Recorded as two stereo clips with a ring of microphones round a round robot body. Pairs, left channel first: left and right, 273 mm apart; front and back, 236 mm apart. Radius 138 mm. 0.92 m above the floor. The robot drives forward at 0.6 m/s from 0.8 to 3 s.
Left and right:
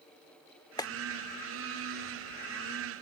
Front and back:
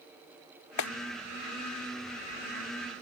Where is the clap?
15° left.